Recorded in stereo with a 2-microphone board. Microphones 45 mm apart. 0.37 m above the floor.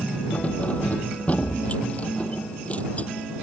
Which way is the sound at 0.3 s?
35° left (ahead or behind).